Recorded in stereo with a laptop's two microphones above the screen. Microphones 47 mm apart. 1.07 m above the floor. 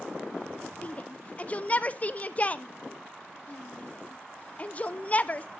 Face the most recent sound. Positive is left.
turn(degrees=30)  # may be behind; listen again after turning